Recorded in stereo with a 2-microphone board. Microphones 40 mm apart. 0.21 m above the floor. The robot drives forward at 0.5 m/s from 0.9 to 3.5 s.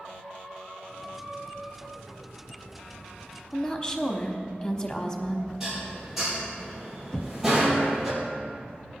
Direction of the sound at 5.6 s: 5° right (ahead or behind).